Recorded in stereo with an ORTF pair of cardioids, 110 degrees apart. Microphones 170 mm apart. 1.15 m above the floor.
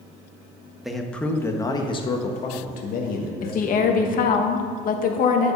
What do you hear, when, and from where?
0.8 s a man speaking: 5° right, 1.3 m; by 4.3 s 75° left, 1.9 m
3.4 s a woman speaking: 55° left, 1.4 m